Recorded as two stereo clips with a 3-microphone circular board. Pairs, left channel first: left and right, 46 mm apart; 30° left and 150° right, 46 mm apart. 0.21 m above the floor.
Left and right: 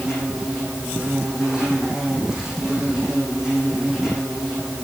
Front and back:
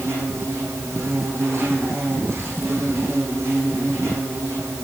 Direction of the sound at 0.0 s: 170° right.